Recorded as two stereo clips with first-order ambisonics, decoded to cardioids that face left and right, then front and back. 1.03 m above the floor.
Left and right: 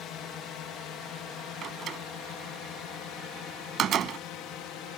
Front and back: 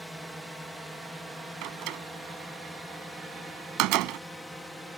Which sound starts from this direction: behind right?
A door slam, at 1.6 s.